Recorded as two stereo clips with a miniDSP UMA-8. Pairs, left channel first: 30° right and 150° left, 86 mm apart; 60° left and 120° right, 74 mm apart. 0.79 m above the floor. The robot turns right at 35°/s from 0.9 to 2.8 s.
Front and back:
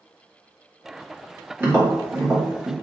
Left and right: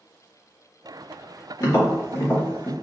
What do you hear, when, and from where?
1.6 s tapping: 90° left, 1.8 m; by 2.7 s 130° left, 1.8 m